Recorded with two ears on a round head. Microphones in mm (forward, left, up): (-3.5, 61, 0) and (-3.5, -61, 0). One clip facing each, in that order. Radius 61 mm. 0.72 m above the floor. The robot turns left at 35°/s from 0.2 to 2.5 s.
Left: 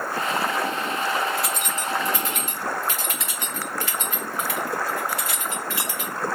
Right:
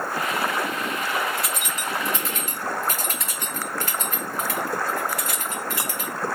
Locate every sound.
1.4 s keys jangling: centre (ahead or behind), 1.0 m; by 6.1 s 35° right (ahead or behind), 1.0 m